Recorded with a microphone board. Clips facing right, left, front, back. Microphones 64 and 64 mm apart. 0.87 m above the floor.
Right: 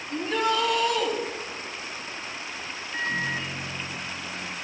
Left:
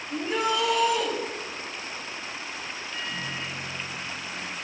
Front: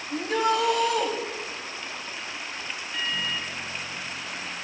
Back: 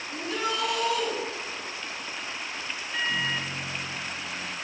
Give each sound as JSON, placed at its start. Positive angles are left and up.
{"t": 0.1, "sound": "a shout", "azimuth_deg": 15, "distance_m": 4.5}
{"t": 2.9, "sound": "a microwave", "azimuth_deg": -125, "distance_m": 1.0}